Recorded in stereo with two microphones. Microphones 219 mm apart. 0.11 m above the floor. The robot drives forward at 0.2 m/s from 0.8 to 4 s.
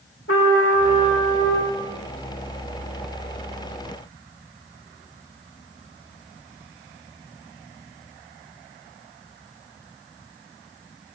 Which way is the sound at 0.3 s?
75° left (ahead or behind).